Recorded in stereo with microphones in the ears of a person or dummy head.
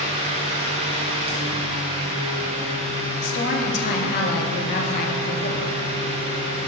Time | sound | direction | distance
0.0 | a fan | 35° right (ahead or behind) | 1.1 m
3.2 | a woman speaking | 45° left (ahead or behind) | 1.3 m